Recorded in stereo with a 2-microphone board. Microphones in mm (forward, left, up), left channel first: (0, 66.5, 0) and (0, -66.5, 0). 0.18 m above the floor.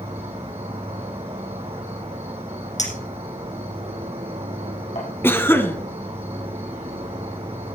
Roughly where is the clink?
Left.